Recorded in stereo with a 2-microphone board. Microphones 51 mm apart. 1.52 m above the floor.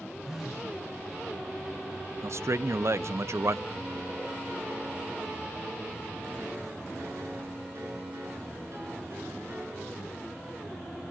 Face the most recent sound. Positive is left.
turn(degrees=-60)  # may be behind; listen again after turning